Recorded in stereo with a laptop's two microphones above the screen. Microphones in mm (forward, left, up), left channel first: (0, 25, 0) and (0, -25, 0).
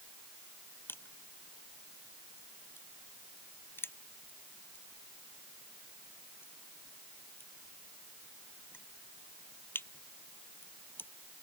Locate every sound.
0.9 s crushing: 45° left (ahead or behind)